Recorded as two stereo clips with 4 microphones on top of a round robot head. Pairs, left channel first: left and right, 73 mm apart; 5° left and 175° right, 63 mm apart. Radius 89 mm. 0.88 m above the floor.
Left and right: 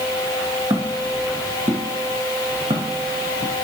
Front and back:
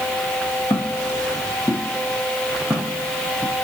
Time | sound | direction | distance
0.7 | footsteps | 50° right | 3 m